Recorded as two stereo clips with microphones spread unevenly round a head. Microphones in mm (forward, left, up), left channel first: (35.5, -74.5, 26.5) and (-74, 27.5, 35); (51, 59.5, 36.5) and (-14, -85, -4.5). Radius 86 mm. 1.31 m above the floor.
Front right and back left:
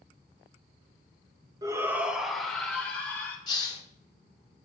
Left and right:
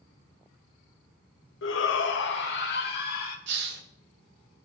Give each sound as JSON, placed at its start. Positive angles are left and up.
{"t": 1.6, "sound": "a shout", "azimuth_deg": 70, "distance_m": 0.8}
{"t": 3.5, "sound": "a hiss", "azimuth_deg": -105, "distance_m": 1.2}